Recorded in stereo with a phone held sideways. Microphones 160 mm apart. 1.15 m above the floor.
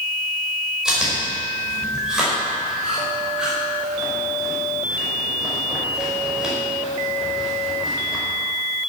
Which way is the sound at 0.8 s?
5° right (ahead or behind).